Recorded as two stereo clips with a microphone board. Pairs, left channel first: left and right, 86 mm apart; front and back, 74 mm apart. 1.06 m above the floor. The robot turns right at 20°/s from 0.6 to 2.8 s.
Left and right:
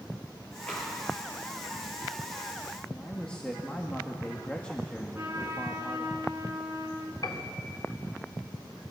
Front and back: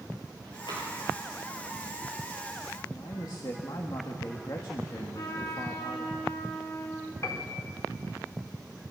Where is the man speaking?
15° left, 1.8 m.